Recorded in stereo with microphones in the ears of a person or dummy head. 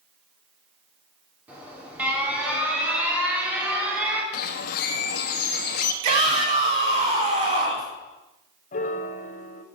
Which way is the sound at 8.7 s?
40° left (ahead or behind).